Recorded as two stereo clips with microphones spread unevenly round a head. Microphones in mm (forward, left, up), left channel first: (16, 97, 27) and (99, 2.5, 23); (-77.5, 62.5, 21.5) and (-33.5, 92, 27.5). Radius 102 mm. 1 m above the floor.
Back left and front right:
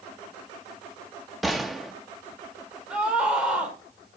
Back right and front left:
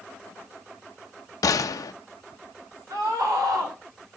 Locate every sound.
1.4 s a gunshot: 140° right, 0.5 m
2.9 s a scream: 35° left, 3 m